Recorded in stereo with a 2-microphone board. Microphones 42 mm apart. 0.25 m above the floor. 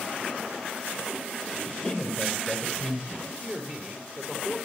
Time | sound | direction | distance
1.7 | a man speaking | 5° left (ahead or behind) | 6.5 m
3.1 | a man speaking | 25° right (ahead or behind) | 4.5 m